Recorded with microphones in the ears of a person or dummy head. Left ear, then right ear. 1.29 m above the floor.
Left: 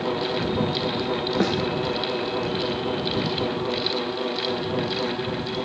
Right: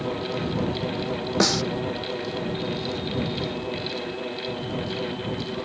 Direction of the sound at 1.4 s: 40° right (ahead or behind).